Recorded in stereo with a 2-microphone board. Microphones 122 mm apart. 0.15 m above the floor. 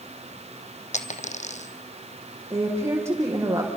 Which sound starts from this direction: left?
A dropped coin, at 0.9 s.